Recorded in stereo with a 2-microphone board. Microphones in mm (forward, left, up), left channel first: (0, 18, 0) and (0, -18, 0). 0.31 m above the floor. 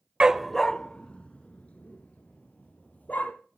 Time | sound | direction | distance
0.2 | a dog barking | 25° right (ahead or behind) | 0.5 m